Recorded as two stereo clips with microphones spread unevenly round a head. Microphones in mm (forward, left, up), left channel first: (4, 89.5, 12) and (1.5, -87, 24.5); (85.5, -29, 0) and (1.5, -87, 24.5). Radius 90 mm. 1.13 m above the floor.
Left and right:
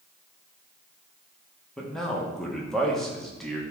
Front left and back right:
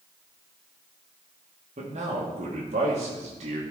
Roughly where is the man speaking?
Behind.